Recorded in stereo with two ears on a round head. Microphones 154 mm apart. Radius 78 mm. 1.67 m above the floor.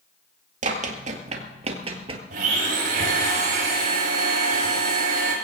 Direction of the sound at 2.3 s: 55° right (ahead or behind).